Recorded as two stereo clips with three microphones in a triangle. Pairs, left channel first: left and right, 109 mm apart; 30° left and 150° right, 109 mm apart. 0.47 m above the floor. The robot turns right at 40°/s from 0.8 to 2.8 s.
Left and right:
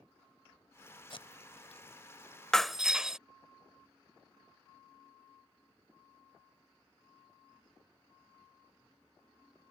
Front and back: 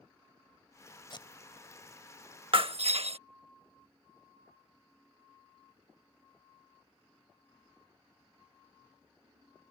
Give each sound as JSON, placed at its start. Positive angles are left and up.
{"t": 1.1, "sound": "tape being pulled", "azimuth_deg": 65}
{"t": 2.5, "sound": "breaking glass", "azimuth_deg": 175}